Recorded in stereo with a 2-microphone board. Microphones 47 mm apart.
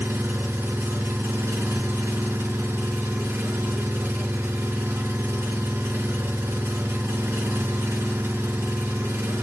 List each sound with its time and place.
0.0 s an engine running: 75° right (ahead or behind), 2 m